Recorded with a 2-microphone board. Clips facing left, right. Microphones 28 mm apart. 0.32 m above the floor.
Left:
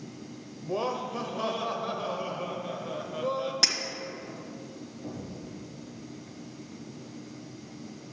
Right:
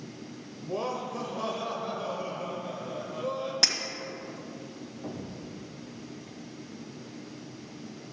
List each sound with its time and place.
0.6 s laughter: 20° left (ahead or behind), 0.9 m
3.6 s breaking glass: 5° right (ahead or behind), 1.2 m
5.0 s an explosion: 65° right (ahead or behind), 2.5 m